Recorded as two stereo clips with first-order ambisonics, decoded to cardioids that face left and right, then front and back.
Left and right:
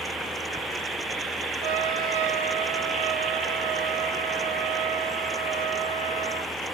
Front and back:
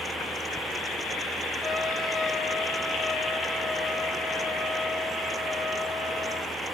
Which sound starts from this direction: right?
A trumpet, at 1.6 s.